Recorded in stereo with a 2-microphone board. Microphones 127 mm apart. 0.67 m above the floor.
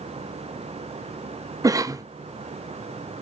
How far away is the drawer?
I don't hear a drawer.